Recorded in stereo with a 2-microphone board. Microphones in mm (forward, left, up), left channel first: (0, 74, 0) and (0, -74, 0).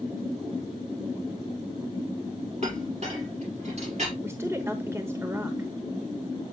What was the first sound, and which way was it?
A clink, 50° right (ahead or behind).